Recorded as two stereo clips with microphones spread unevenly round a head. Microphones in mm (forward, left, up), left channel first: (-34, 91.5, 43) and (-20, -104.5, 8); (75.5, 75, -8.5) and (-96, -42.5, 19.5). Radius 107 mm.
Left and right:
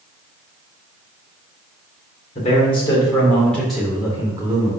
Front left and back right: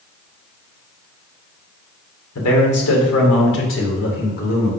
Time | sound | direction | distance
2.4 | a man speaking | 35° left | 2 m